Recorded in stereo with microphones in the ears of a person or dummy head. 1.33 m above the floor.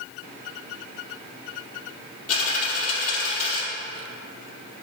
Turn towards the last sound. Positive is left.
turn(degrees=45)  # may be behind; listen again after turning